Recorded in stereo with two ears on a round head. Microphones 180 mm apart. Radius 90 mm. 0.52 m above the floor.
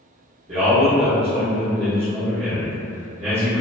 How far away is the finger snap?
I don't hear a finger snap.